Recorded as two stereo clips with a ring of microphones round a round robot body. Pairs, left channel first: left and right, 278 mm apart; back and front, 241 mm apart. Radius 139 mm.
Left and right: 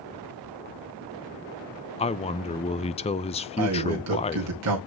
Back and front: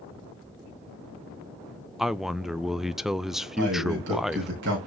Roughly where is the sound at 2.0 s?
Left.